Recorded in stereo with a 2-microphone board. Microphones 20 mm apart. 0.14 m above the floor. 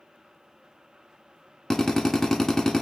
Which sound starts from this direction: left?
A drill, at 1.7 s.